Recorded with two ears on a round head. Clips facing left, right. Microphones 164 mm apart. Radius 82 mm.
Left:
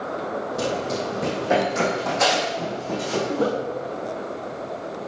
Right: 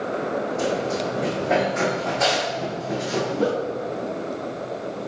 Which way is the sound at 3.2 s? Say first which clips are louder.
Even; 50° left (ahead or behind).